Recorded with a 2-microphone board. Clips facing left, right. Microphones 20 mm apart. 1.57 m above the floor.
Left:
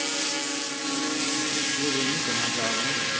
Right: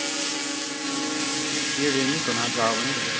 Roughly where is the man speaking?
Right.